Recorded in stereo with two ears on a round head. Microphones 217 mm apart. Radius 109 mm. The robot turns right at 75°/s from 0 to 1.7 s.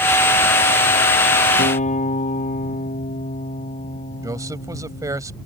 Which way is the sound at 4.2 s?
15° right (ahead or behind).